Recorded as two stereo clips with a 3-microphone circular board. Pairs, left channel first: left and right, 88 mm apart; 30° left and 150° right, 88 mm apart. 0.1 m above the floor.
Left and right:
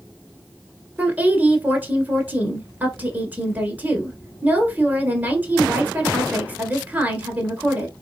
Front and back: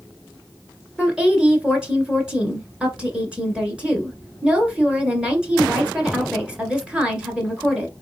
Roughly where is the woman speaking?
Right.